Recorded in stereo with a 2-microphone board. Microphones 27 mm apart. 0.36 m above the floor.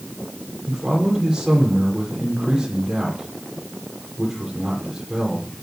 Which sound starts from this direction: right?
A man speaking, at 0.7 s.